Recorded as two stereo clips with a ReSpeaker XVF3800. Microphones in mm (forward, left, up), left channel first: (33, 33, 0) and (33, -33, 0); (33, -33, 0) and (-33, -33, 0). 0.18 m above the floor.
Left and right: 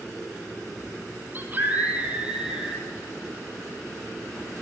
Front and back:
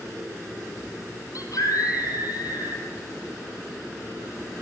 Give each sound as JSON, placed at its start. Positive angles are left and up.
{"t": 1.4, "sound": "a scream", "azimuth_deg": -30, "distance_m": 5.5}